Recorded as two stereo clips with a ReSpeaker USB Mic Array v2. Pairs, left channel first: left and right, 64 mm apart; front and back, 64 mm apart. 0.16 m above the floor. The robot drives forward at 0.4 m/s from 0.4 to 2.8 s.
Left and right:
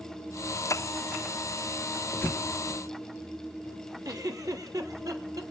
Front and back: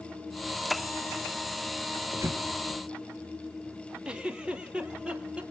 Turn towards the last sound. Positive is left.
turn(degrees=-105)